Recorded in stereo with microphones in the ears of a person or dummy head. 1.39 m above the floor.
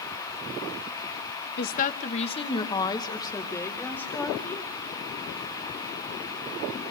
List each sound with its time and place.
1.6 s a woman speaking: 55° left (ahead or behind), 1.0 m; by 4.7 s 15° left (ahead or behind), 3.5 m